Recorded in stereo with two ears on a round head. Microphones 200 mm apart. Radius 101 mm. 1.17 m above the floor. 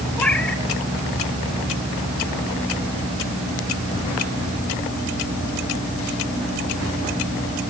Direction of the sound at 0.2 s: 5° left (ahead or behind).